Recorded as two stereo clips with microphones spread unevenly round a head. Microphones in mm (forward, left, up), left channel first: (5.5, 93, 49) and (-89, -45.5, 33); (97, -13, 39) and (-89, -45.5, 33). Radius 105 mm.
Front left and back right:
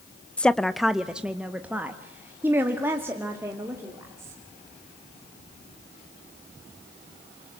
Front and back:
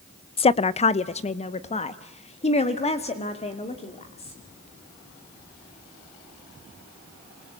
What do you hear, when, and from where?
0.4 s a woman speaking: 30° right, 0.5 m; by 4.4 s 50° right, 2.5 m